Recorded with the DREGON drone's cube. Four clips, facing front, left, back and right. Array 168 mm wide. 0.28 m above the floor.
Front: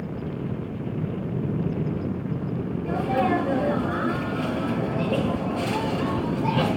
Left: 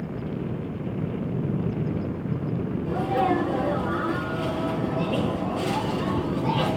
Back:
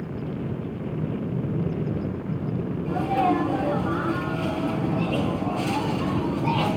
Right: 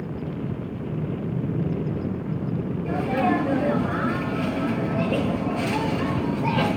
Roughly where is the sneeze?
Ahead right.